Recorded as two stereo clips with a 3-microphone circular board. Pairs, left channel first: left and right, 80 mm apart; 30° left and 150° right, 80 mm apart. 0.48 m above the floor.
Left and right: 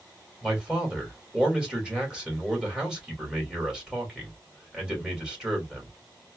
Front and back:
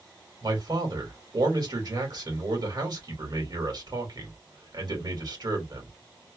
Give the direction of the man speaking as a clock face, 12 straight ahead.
6 o'clock.